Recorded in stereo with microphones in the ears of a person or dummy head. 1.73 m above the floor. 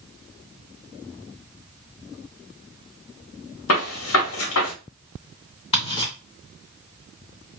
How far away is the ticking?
About 2 m.